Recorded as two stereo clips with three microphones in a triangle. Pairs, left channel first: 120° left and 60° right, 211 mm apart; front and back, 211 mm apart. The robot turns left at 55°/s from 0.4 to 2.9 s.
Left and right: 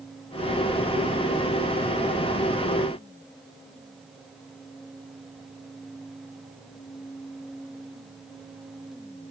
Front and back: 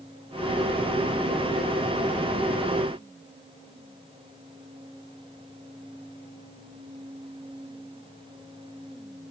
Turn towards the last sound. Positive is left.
No sound to turn to.